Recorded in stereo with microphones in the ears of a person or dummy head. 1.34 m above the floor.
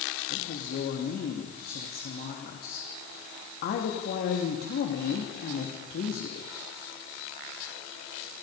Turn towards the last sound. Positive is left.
turn(degrees=40)  # may be behind; listen again after turning